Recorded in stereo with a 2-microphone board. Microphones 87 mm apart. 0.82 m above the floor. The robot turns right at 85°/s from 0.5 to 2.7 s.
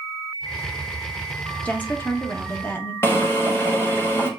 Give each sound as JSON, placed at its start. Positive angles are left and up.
{"t": 1.6, "sound": "a woman speaking", "side_deg": 15, "distance_m": 0.8}
{"t": 3.0, "sound": "a drill", "side_deg": 30, "distance_m": 1.3}